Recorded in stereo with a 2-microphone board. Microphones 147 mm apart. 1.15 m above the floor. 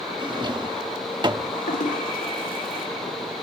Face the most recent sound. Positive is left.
turn(degrees=75)  # may be behind; listen again after turning